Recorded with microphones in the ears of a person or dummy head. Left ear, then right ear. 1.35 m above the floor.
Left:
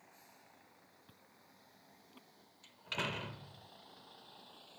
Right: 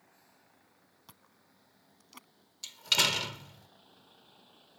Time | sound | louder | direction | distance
0.0 | a vehicle | left 2 dB | 20° left (ahead or behind) | ?
1.1 | chewing | right 2 dB | 65° right (ahead or behind) | ?
2.6 | a door slam | right 13 dB | 85° right | ?